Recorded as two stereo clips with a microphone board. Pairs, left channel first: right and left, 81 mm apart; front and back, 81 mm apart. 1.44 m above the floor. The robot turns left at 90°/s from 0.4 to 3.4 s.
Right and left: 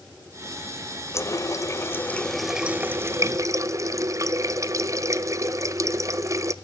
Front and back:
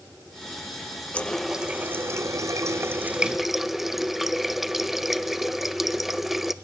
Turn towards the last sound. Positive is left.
turn(degrees=95)